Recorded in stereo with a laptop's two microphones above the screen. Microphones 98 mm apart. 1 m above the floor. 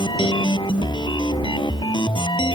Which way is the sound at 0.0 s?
55° left (ahead or behind).